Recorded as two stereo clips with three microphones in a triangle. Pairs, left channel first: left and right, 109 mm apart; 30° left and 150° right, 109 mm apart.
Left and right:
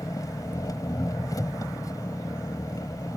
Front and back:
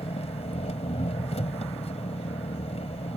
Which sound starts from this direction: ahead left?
An engine running, at 0.0 s.